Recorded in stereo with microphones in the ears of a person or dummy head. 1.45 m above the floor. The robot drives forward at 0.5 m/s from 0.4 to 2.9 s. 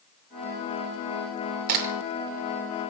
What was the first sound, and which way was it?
A crack, 50° right (ahead or behind).